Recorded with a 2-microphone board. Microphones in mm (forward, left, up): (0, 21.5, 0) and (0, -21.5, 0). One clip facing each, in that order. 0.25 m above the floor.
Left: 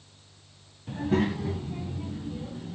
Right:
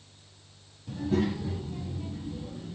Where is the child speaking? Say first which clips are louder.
Left 2 dB; 40° left (ahead or behind), 1.0 m; by 2.8 s 70° left (ahead or behind), 2.5 m.